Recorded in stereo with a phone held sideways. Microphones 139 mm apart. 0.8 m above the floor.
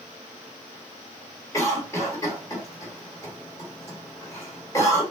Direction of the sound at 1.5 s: 20° left (ahead or behind).